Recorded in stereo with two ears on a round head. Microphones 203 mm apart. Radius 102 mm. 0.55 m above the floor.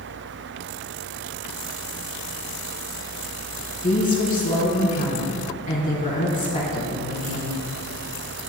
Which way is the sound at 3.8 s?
25° left (ahead or behind).